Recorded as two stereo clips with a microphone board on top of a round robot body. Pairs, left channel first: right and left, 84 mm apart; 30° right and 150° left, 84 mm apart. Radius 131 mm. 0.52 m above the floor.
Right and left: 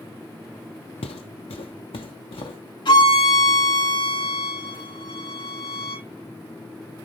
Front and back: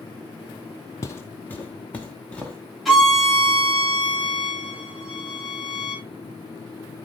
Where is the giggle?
No giggle in this recording.